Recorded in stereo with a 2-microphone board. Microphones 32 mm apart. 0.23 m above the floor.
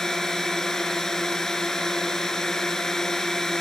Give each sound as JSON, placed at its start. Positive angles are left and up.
{"t": 0.0, "sound": "a drone", "side_deg": 15}